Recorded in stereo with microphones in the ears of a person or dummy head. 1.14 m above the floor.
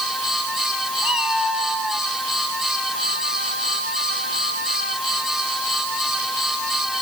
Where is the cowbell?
I don't hear a cowbell.